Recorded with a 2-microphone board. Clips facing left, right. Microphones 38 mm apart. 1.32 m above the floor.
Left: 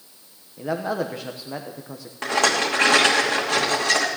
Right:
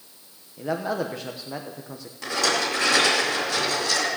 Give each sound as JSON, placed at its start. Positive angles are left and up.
{"t": 0.6, "sound": "a man speaking", "side_deg": 5, "distance_m": 0.9}
{"t": 2.2, "sound": "a rattle", "side_deg": 50, "distance_m": 3.0}